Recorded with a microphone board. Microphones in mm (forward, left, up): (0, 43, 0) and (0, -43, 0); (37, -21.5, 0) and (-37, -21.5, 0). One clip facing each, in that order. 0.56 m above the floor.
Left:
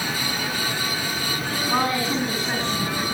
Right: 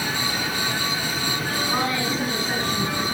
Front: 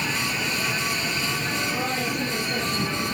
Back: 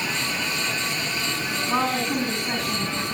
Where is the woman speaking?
155° left, 6 m; by 3.0 s 150° left, 6.5 m.